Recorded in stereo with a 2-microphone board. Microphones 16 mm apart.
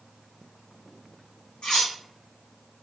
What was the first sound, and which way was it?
Cutlery clinking, 65° left (ahead or behind).